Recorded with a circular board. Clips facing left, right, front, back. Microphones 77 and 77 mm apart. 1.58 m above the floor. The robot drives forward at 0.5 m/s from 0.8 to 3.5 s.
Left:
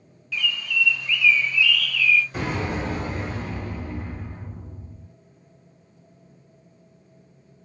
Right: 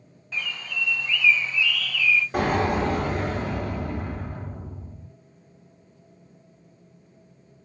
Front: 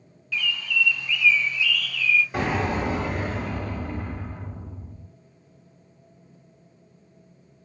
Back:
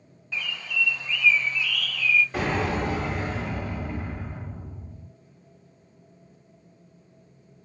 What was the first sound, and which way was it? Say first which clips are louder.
A bird: left 5 dB, front 4 dB; 130° right.